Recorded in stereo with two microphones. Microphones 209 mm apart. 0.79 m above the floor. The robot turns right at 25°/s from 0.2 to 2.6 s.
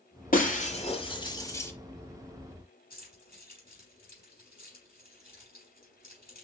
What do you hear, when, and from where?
0.3 s breaking glass: 40° left (ahead or behind), 1.1 m; by 1.7 s 10° left (ahead or behind), 1.1 m
2.9 s keys jangling: 45° left (ahead or behind), 3.5 m